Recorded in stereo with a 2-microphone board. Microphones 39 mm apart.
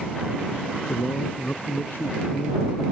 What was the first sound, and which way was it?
A man speaking, 50° left (ahead or behind).